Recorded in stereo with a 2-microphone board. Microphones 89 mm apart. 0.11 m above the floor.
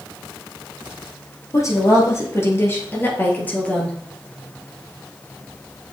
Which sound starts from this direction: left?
A woman speaking, at 1.5 s.